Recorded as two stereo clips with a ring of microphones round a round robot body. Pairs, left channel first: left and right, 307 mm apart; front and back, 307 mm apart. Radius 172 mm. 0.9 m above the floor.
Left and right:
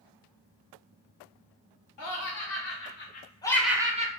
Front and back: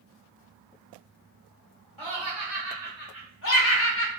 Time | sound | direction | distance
2.0 | laughter | 70° left | 1.2 m